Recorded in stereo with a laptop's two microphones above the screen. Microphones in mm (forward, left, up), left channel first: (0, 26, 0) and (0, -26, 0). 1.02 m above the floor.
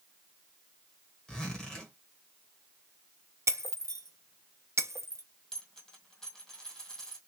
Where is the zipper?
15° left (ahead or behind), 1.1 m.